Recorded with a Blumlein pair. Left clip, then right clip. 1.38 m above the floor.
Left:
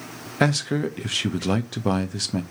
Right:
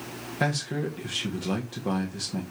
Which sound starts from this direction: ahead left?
A man speaking, at 0.4 s.